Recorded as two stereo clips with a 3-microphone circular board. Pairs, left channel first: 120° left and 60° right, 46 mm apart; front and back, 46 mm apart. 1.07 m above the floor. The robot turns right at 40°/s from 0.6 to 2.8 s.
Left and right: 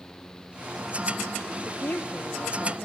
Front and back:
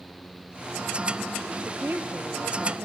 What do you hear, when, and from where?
1.6 s a woman speaking: 145° left, 1.3 m; by 2.9 s 170° right, 1.3 m